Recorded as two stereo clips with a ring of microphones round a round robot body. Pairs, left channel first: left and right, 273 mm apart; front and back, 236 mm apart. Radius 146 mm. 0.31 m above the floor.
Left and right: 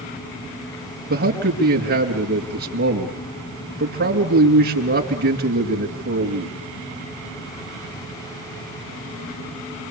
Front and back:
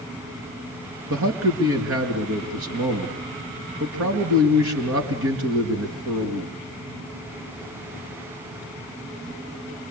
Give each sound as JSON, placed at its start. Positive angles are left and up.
{"t": 1.1, "sound": "a man speaking", "azimuth_deg": -145, "distance_m": 5.0}